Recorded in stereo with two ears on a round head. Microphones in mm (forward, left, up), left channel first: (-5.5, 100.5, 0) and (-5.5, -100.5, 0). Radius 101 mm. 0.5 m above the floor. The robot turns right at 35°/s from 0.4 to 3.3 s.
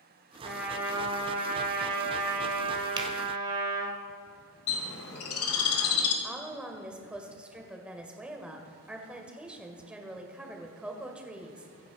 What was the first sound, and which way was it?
A trumpet, straight behind.